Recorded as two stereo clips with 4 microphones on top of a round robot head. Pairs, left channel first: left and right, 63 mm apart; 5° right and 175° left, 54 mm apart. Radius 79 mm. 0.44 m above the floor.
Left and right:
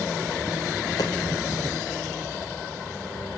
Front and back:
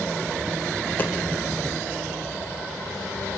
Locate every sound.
1.0 s a dropped coin: 50° left, 0.9 m